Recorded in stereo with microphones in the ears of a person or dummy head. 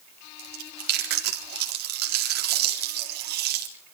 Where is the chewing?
60° right (ahead or behind), 4 m.